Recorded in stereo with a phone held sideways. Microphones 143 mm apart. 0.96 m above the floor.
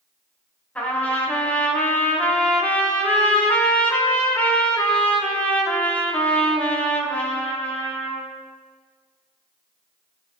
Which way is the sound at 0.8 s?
10° left (ahead or behind).